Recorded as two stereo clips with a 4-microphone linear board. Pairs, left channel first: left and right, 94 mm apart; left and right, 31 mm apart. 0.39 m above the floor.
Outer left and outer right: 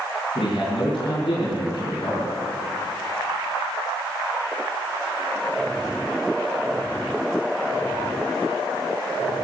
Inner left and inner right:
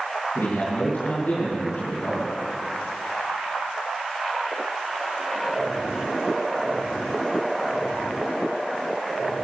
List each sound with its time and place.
0.3 s a man speaking: 70° left (ahead or behind), 4.5 m; by 2.4 s 55° left (ahead or behind), 5 m